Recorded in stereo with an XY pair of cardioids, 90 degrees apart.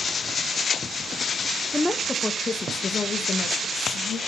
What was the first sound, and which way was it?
A woman speaking, 10° left.